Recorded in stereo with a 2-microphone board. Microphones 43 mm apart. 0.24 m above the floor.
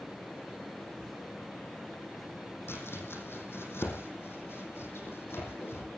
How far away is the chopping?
About 6.5 m.